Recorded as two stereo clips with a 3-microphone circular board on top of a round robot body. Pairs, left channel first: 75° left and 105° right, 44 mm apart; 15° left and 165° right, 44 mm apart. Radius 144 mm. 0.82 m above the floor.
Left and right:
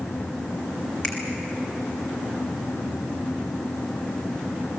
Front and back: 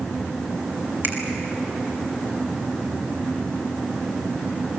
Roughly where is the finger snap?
Behind left.